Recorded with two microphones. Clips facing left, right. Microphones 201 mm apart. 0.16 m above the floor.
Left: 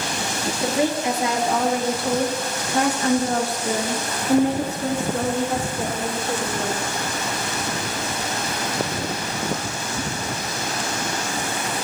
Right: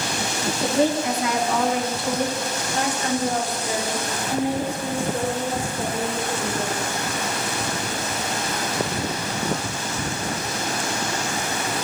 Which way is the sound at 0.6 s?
10° left (ahead or behind).